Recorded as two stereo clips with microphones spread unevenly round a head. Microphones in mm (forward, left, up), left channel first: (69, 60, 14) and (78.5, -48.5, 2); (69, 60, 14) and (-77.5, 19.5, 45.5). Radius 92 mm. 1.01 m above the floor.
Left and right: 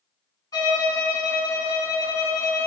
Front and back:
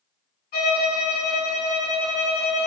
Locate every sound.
0.5 s a violin: 40° left, 1.3 m